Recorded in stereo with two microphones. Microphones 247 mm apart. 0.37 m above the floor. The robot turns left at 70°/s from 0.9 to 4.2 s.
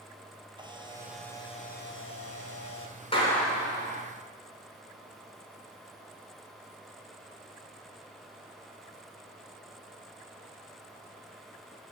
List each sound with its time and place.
0.6 s a camera shutter: 160° right, 1.7 m; by 3.0 s 55° left, 1.7 m
3.1 s a clap: 25° left, 3.5 m; by 4.0 s 40° right, 3.5 m